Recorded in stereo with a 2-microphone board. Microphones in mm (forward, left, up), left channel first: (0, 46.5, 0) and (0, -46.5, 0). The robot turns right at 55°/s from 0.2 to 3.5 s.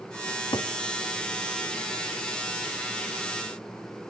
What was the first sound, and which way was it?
A cupboard door, 45° left (ahead or behind).